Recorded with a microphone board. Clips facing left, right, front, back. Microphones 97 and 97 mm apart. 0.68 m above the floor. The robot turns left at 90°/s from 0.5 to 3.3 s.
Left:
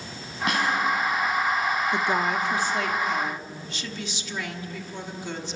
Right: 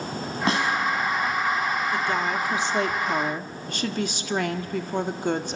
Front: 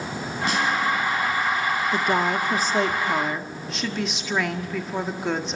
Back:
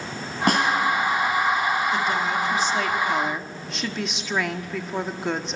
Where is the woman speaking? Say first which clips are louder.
Left 1 dB, front 1 dB; 35° left, 1.4 m; by 5.6 s 90° right, 1.4 m.